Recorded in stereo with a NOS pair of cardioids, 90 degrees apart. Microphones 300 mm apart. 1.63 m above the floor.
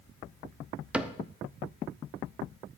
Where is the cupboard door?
5° right, 0.6 m.